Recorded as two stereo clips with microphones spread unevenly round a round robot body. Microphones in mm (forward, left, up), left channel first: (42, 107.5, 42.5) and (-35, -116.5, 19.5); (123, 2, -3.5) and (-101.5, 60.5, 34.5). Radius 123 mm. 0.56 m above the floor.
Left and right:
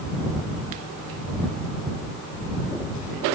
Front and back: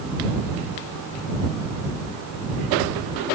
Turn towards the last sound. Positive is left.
No sound to turn to.